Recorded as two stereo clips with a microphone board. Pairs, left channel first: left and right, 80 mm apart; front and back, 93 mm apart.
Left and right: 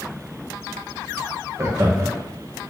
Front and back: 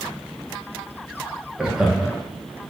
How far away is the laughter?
About 0.6 m.